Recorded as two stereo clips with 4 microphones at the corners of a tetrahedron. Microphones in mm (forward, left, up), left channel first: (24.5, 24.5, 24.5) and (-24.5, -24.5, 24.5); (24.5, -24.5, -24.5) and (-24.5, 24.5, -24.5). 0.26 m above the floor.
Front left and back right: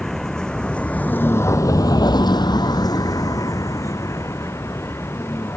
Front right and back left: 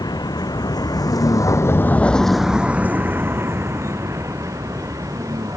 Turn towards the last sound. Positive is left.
turn(degrees=100)